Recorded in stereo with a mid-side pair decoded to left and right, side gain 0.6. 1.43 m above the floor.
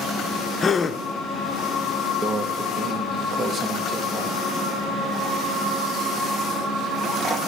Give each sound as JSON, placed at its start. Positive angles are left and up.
{"t": 0.6, "sound": "a gasp", "azimuth_deg": 25, "distance_m": 0.8}
{"t": 2.2, "sound": "a microwave", "azimuth_deg": -35, "distance_m": 1.3}